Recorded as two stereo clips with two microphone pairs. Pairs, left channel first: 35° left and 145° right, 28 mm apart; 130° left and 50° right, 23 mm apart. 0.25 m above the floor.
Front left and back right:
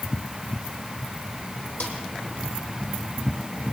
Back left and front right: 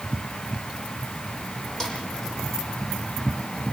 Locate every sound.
1.8 s a snare drum: 60° left, 5.5 m